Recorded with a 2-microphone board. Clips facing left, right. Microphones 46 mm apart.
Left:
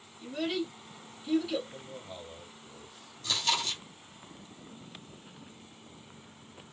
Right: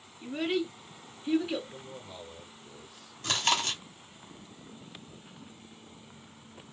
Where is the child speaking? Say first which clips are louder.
Right 2 dB; 25° right (ahead or behind), 1.7 m.